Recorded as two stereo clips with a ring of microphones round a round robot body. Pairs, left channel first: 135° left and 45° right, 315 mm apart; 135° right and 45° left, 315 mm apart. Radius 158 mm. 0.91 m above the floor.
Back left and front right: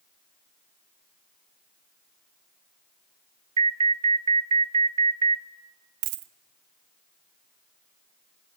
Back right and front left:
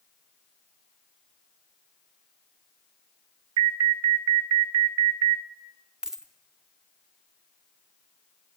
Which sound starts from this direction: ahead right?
A dropped coin, at 6.0 s.